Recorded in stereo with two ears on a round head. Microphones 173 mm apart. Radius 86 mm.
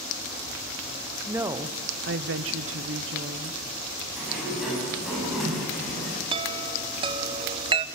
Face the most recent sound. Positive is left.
turn(degrees=-25)  # may be behind; listen again after turning